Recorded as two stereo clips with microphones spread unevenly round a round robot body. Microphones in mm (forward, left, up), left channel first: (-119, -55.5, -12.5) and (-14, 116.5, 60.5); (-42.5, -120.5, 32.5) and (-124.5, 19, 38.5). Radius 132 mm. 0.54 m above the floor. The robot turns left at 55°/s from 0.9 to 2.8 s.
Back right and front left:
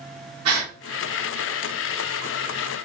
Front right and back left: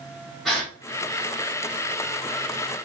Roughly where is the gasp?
Ahead left.